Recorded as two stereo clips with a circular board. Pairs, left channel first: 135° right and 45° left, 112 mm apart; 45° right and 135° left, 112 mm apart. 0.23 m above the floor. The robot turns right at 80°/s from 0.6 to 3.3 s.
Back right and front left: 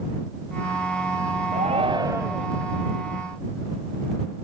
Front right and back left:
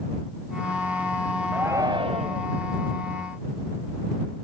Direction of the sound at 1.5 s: 55° left.